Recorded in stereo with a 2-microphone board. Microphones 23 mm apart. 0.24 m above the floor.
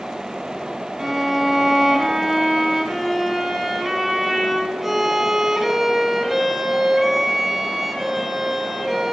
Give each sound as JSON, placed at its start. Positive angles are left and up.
{"t": 1.0, "sound": "a violin", "side_deg": -15, "distance_m": 1.3}